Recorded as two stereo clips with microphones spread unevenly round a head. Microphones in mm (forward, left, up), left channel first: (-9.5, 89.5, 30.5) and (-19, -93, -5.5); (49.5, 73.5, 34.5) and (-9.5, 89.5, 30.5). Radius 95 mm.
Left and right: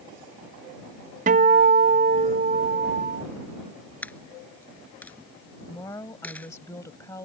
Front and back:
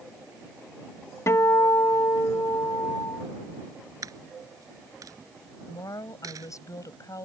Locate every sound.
1.3 s a guitar: 60° right
4.0 s a dropped coin: 160° left
5.7 s a woman speaking: 10° left